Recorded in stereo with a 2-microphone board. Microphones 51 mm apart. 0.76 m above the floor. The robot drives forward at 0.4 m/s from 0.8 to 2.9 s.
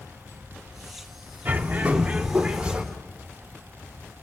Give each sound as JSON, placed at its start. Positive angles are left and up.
{"t": 1.4, "sound": "a bird", "side_deg": -40, "distance_m": 0.7}